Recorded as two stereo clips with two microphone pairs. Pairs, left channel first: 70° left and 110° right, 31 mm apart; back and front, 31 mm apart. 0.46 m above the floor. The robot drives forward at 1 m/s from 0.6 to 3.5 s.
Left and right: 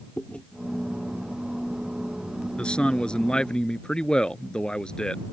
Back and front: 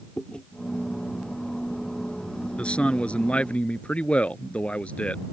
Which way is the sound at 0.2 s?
120° left.